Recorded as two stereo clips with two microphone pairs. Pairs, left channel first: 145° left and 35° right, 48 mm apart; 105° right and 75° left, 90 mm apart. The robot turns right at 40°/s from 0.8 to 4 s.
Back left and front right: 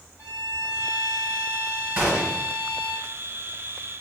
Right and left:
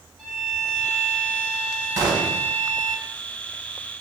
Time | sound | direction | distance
0.2 | a violin | 20° right | 1.5 m
2.0 | a gunshot | 25° left | 1.5 m